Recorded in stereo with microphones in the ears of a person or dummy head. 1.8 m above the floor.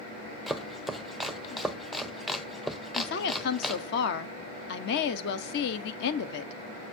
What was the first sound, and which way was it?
Chopping, centre (ahead or behind).